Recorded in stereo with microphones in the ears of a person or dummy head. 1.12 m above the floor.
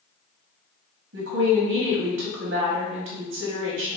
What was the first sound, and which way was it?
A woman speaking, 65° right (ahead or behind).